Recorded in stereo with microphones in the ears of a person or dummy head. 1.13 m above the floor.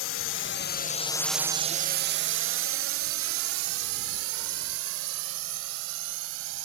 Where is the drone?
60° left (ahead or behind); by 6.7 s 80° right.